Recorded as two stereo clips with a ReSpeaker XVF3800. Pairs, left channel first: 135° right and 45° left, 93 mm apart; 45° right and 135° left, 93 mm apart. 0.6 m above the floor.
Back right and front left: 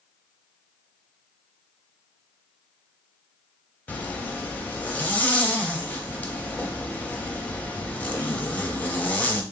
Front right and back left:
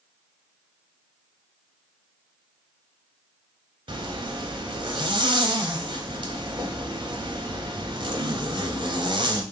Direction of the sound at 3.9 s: 155° left.